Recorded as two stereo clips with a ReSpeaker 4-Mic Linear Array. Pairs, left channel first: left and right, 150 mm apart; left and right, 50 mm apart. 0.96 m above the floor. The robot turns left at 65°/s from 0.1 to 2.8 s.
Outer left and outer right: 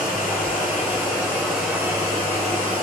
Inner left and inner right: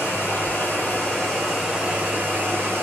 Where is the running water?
95° left, 1.6 m; by 2.8 s 80° right, 1.6 m.